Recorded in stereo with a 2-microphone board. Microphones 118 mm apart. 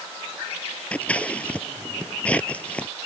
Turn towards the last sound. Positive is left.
turn(degrees=10)  # may be behind; listen again after turning